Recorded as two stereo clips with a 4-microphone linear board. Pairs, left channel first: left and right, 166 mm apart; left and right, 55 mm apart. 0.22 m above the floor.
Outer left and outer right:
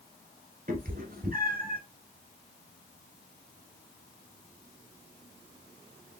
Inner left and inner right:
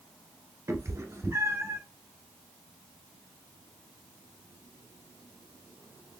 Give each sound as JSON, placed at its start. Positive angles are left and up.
{"t": 0.7, "sound": "a cat meowing", "side_deg": -60, "distance_m": 1.2}